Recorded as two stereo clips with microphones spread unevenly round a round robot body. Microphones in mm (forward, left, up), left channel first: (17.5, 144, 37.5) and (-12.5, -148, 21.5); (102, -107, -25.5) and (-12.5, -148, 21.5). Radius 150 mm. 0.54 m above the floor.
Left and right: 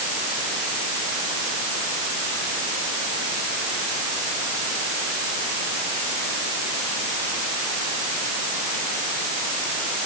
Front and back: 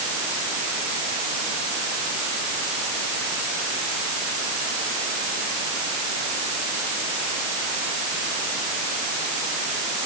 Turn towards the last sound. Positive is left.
No sound to turn to.